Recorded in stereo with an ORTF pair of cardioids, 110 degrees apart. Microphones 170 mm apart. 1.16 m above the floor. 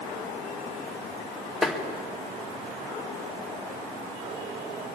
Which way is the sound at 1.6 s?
Straight ahead.